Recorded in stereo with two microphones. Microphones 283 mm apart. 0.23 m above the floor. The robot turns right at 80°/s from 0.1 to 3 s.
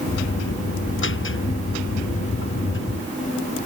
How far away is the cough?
I don't hear a cough.